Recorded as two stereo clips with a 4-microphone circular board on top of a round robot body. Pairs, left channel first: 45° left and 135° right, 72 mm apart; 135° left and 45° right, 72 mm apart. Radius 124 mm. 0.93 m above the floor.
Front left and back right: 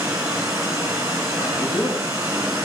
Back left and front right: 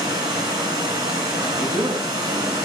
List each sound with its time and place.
0.0 s running water: 75° right, 2.5 m
1.4 s a man speaking: 5° left, 5.5 m